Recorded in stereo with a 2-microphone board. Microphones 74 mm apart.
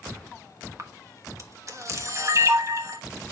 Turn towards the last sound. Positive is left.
turn(degrees=-45)  # may be behind; listen again after turning